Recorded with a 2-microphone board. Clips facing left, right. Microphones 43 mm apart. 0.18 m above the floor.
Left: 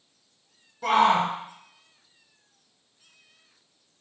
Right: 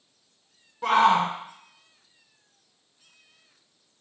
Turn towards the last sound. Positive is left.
turn(degrees=-30)  # may be behind; listen again after turning